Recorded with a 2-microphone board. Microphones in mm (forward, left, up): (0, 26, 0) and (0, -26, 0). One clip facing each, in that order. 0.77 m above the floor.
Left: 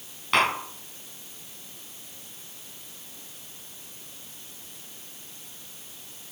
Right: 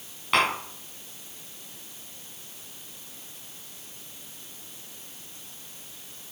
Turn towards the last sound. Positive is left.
turn(degrees=-5)  # may be behind; listen again after turning